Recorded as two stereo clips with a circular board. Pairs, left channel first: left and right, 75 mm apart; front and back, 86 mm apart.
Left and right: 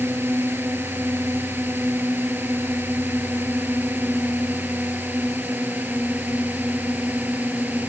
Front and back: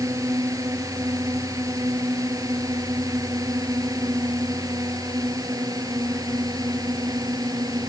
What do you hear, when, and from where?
0.0 s a drone: 145° right; by 7.9 s 150° right